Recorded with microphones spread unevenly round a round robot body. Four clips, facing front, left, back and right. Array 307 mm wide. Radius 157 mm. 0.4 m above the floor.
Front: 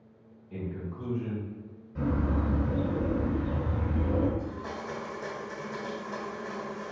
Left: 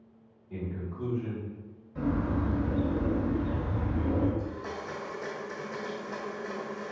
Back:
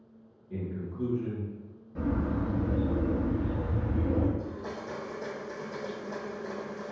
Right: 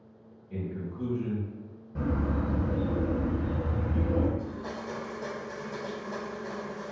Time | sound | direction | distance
0.5 | a man speaking | 155° right | 1.6 m
1.9 | a bird | 100° right | 1.7 m
4.4 | a blender | 165° left | 1.5 m